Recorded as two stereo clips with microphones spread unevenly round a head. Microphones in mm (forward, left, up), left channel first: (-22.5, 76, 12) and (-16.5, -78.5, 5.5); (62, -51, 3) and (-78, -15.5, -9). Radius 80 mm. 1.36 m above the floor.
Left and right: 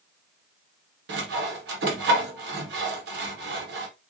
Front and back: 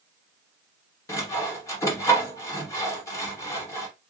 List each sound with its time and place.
1.1 s sawing: 80° right, 0.9 m